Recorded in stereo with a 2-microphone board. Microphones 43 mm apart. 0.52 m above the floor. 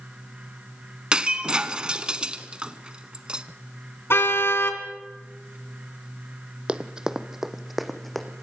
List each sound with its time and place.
1.1 s breaking glass: 20° right (ahead or behind), 0.9 m
4.1 s a car horn: 75° left (ahead or behind), 2.5 m
6.7 s running footsteps: 25° right (ahead or behind), 1.1 m; by 8.4 s 5° left (ahead or behind), 1.9 m